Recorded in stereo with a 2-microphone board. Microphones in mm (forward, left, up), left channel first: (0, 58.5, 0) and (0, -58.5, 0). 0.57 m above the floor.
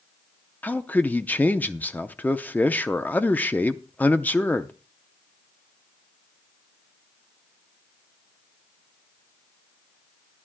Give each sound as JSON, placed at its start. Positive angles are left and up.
{"t": 0.6, "sound": "a man speaking", "side_deg": 15, "distance_m": 0.6}